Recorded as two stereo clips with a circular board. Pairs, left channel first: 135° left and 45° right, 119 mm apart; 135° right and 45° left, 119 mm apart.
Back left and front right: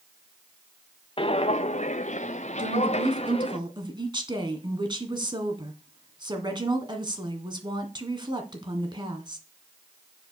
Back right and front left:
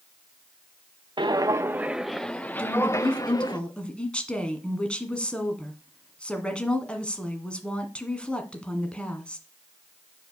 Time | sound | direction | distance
1.2 | footsteps | 95° left | 0.7 m
2.6 | a woman speaking | 60° right | 1.9 m